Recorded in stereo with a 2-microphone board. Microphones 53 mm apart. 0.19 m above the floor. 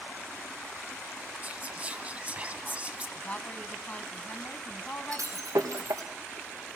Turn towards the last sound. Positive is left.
turn(degrees=-80)